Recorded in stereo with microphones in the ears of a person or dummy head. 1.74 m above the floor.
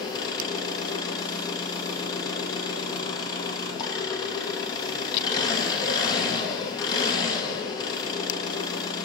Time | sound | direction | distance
0.0 | an engine running | 25° left (ahead or behind) | 2 m